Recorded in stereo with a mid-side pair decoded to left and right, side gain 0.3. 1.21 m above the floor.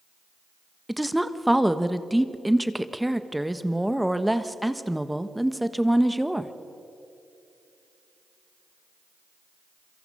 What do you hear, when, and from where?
0.9 s a woman speaking: 5° right, 1.3 m